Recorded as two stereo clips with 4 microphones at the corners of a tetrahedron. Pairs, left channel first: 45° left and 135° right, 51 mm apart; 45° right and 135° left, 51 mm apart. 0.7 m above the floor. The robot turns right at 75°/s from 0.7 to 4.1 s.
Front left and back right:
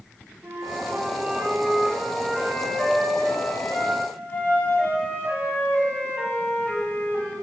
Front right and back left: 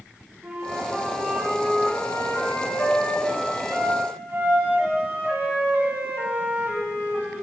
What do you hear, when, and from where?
0.4 s a flute: 170° right, 1.8 m; by 7.3 s 85° left, 1.8 m